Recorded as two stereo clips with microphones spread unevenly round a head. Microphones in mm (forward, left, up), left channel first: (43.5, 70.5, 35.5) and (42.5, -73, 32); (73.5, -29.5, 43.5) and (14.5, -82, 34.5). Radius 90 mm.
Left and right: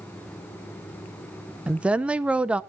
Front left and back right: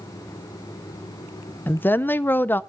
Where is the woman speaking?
15° right, 0.6 m.